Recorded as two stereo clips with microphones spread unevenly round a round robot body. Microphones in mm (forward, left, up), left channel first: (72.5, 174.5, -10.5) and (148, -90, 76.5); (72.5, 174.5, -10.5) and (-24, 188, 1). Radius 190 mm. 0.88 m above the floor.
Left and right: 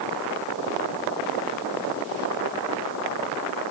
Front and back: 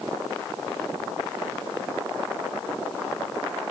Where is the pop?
I don't hear a pop.